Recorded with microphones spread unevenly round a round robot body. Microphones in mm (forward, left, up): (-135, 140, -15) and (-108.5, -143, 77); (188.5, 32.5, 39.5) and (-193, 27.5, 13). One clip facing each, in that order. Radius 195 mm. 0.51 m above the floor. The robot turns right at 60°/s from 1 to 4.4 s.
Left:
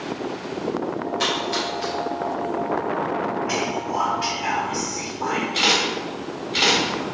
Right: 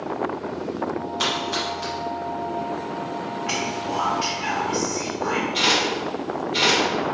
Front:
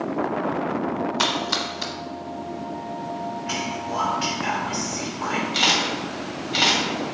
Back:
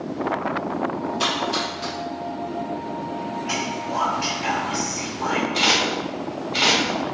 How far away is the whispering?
About 1.3 m.